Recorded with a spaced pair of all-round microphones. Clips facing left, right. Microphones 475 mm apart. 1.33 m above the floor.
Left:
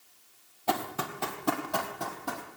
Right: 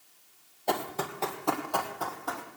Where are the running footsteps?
25° left (ahead or behind), 2.5 m; by 2.5 s 45° left (ahead or behind), 3.5 m.